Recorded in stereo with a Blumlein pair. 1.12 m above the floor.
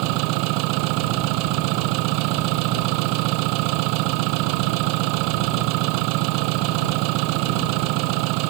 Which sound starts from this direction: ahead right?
An engine running, at 0.0 s.